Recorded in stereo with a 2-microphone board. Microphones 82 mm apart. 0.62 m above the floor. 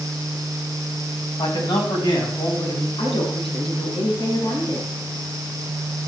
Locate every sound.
1.4 s a man speaking: 65° left (ahead or behind), 3.5 m; by 2.9 s 55° left (ahead or behind), 4.5 m
3.0 s a woman speaking: 85° left, 6 m